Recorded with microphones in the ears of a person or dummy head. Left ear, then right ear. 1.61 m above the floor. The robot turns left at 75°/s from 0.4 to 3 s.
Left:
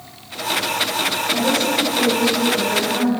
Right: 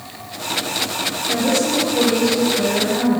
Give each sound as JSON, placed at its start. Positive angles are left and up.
{"t": 1.3, "sound": "a woman speaking", "azimuth_deg": -150, "distance_m": 4.5}